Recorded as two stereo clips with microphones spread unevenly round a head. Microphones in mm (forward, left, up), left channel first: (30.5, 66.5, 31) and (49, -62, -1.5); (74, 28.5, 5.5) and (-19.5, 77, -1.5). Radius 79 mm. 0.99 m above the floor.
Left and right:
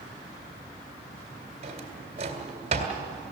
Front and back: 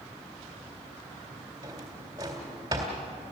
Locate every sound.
1.6 s a drawer: 140° right, 2 m